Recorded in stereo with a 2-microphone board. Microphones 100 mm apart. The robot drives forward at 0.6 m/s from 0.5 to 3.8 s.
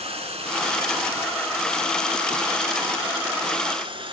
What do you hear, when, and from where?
0.0 s running water: 85° right, 3 m; by 4.1 s 60° right (ahead or behind), 3.5 m